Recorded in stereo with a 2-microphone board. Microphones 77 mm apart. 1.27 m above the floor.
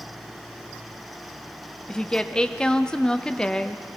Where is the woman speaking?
10° left (ahead or behind), 0.5 m.